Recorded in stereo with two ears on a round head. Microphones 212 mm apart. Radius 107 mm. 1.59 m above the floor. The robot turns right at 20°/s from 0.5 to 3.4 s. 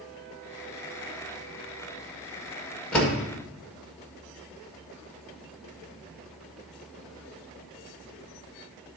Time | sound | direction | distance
2.9 | a door slam | 5° left (ahead or behind) | 1.6 m